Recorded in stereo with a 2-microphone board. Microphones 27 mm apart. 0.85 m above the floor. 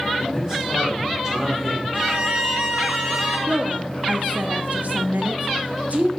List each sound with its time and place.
0.2 s a man speaking: 25° right (ahead or behind), 2 m
1.9 s a violin: 40° right (ahead or behind), 2.5 m
3.5 s a woman speaking: 65° right (ahead or behind), 0.7 m